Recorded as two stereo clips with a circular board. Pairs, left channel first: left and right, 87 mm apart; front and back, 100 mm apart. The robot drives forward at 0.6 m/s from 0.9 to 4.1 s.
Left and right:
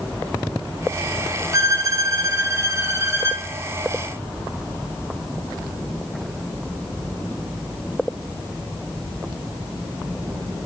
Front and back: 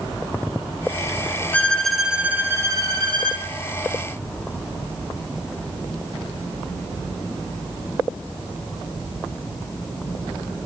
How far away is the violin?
About 0.8 m.